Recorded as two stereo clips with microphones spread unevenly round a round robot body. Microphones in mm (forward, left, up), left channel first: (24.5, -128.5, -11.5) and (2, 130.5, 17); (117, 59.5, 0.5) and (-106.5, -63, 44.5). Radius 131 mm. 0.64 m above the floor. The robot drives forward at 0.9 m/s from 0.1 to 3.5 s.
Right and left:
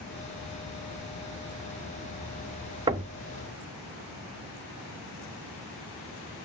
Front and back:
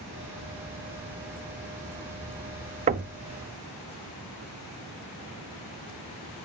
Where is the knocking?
160° left, 0.5 m; by 3.1 s 170° left, 0.6 m.